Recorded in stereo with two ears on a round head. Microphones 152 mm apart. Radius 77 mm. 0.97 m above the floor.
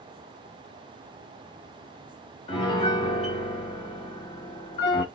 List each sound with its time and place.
2.5 s a piano: 40° left (ahead or behind), 1.4 m